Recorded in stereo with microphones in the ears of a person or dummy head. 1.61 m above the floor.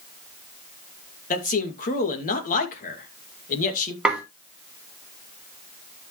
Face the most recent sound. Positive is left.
turn(degrees=-5)  # may be behind; listen again after turning